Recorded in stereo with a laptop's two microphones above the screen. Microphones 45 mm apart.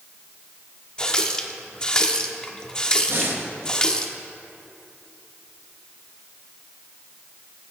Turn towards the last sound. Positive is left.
turn(degrees=-55)  # may be behind; listen again after turning